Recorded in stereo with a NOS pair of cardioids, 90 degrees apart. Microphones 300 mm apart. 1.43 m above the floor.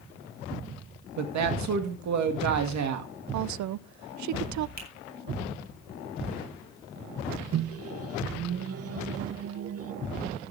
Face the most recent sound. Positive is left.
turn(degrees=-50)